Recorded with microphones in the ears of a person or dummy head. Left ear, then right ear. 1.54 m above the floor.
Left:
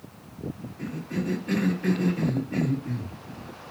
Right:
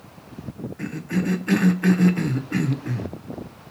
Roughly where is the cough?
Right.